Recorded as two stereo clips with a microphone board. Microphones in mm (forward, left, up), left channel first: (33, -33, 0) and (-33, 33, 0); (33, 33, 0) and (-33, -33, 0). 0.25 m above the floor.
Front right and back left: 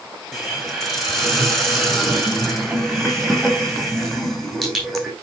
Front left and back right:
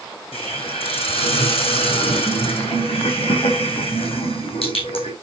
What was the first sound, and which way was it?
A hiss, 40° left.